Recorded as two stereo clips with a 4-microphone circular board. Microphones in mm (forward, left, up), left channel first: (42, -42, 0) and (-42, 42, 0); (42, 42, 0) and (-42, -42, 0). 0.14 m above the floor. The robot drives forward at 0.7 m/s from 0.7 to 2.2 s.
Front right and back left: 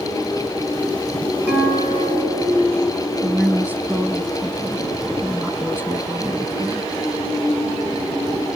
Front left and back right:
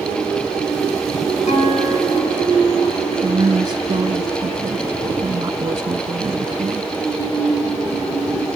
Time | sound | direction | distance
1.5 | a guitar | 65° left | 6 m
3.2 | a woman speaking | 160° right | 1.2 m